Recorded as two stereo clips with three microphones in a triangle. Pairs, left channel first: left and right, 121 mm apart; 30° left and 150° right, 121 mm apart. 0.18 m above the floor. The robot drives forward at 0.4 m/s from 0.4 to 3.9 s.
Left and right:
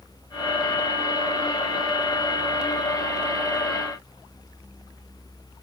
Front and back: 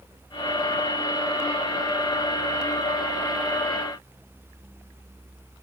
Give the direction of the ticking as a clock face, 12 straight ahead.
I don't hear ticking.